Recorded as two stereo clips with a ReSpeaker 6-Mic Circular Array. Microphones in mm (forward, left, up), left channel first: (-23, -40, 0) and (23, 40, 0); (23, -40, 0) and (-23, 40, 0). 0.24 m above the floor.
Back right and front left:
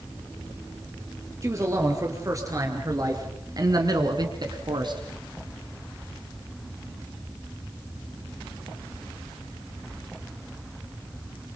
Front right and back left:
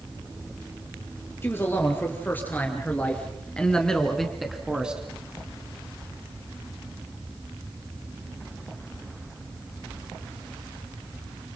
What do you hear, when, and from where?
1.4 s a man speaking: 5° left, 5 m; by 5.0 s 45° left, 2.5 m